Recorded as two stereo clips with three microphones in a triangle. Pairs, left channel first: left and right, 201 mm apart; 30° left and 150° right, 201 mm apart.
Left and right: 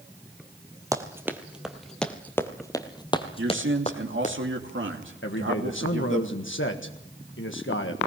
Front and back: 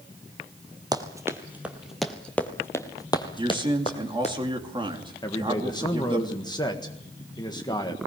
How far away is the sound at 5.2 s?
About 1.5 m.